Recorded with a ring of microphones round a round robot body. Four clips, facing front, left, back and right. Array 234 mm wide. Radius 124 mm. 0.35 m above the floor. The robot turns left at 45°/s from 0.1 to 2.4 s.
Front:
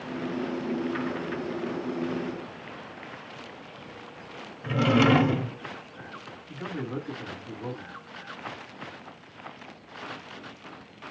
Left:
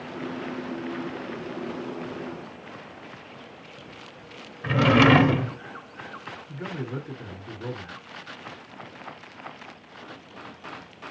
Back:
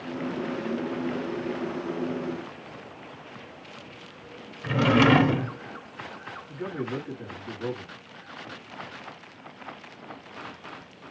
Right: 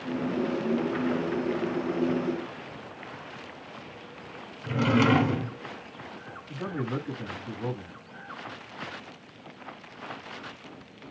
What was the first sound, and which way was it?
A drawer, 110° left.